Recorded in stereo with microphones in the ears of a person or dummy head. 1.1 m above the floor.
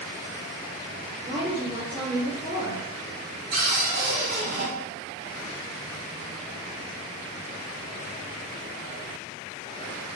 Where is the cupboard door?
55° right (ahead or behind), 0.9 m.